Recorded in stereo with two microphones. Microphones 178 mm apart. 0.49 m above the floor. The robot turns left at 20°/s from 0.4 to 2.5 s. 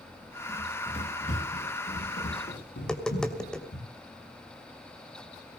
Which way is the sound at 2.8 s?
5° left (ahead or behind).